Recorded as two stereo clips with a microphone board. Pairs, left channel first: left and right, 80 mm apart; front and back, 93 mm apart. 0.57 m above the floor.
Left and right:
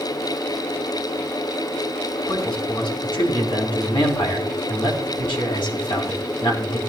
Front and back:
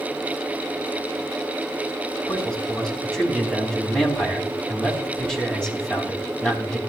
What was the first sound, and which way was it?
A man speaking, 80° left.